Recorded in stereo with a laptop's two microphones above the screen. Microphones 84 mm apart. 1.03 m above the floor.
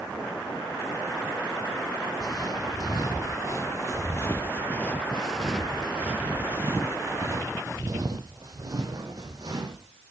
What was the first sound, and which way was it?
Footsteps, 50° left (ahead or behind).